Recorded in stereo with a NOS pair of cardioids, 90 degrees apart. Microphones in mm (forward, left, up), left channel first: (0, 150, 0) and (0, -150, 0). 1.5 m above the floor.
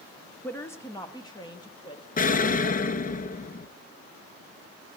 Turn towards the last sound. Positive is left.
turn(degrees=30)